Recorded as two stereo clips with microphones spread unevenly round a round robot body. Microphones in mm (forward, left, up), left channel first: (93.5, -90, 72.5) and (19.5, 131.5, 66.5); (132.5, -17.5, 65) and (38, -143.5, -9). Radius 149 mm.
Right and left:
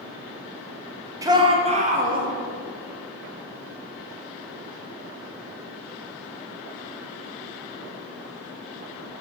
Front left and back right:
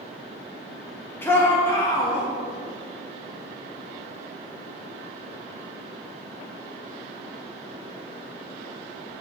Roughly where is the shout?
Behind.